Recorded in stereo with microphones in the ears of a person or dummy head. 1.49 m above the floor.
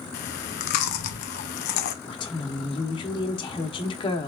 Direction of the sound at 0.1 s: 50° left (ahead or behind).